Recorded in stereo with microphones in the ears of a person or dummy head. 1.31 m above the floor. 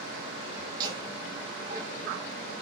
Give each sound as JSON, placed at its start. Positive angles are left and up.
{"t": 0.7, "sound": "laughter", "side_deg": -45, "distance_m": 1.3}